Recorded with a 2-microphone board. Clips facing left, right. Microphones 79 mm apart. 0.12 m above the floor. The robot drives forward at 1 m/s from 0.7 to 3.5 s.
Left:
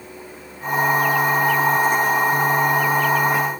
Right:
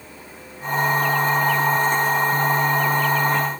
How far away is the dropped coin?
I don't hear a dropped coin.